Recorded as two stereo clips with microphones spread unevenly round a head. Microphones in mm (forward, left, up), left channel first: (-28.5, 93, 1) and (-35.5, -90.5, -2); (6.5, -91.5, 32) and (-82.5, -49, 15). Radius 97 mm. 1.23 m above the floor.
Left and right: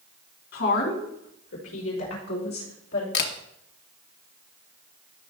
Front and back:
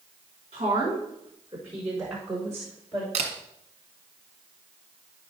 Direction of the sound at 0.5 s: 100° left.